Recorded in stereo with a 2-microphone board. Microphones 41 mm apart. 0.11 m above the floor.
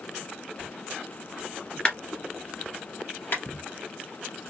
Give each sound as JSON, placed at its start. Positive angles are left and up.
{"t": 1.9, "sound": "a clap", "side_deg": 25, "distance_m": 1.5}
{"t": 3.3, "sound": "a clap", "side_deg": 50, "distance_m": 2.5}